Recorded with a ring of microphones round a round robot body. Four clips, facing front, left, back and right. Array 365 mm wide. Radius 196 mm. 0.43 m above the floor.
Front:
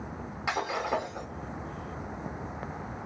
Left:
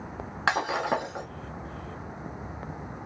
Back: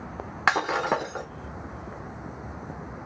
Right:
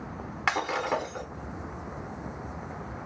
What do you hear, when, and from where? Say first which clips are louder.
0.5 s breaking glass: left 2 dB, back 6 dB; 170° left, 1.3 m